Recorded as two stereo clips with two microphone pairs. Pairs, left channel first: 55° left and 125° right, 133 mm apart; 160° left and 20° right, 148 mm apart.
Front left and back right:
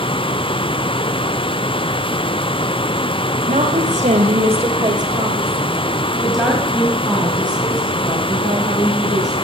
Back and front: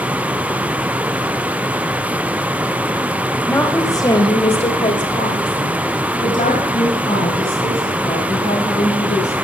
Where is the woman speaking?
125° right, 2.5 m; by 9.3 s 120° left, 6.5 m.